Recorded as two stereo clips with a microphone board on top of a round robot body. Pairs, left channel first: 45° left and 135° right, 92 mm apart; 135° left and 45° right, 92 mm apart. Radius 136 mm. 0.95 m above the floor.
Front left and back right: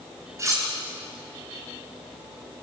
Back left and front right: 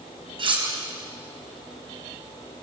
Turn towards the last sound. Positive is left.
turn(degrees=-75)